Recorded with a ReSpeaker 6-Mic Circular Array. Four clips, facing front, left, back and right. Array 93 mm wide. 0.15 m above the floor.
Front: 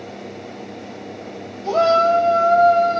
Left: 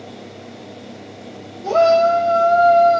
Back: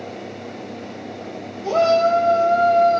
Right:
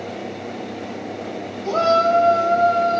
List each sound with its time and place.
1.6 s a shout: 135° left, 3.5 m; by 3.0 s 120° left, 3.5 m